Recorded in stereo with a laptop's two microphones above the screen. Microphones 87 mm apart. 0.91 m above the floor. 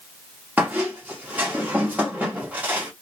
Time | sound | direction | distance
0.6 | a squeak | 20° right (ahead or behind) | 1.0 m